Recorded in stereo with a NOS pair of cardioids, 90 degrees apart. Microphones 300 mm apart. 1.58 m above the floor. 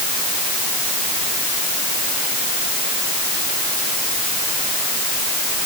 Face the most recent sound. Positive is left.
No sound to turn to.